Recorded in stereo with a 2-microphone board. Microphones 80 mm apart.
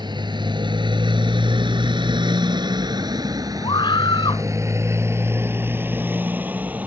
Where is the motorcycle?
70° right (ahead or behind); by 6.9 s 20° right (ahead or behind).